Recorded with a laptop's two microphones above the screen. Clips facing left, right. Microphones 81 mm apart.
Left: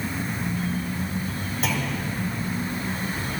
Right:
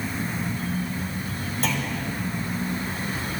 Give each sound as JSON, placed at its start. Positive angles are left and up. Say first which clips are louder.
{"t": 1.6, "sound": "a clunk", "louder": "even", "side_deg": 5, "distance_m": 3.0}